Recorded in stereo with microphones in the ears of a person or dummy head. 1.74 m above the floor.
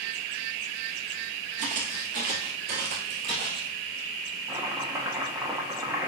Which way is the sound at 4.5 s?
5° right (ahead or behind).